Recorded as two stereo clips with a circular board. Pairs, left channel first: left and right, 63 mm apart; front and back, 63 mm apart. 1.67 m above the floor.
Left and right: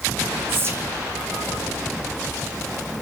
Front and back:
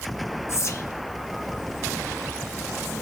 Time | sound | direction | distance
0.5 | whispering | 40° right | 0.5 m